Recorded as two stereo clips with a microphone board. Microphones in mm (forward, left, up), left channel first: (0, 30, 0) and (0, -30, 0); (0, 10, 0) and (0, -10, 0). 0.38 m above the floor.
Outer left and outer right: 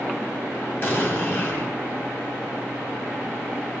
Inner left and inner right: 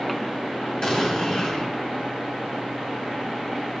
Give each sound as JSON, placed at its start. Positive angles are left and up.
{"t": 0.8, "sound": "an explosion", "side_deg": 35, "distance_m": 2.5}